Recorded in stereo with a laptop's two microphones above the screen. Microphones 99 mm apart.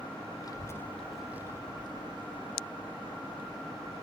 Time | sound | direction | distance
0.4 | a child speaking | 40° left (ahead or behind) | 0.7 m